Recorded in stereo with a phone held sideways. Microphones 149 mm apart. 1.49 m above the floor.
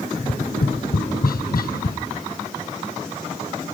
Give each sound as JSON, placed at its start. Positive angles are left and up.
{"t": 0.1, "sound": "tapping", "side_deg": 75, "distance_m": 0.6}